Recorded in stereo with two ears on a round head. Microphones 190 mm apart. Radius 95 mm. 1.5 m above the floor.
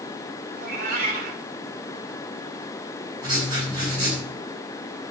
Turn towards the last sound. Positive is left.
turn(degrees=-20)  # may be behind; listen again after turning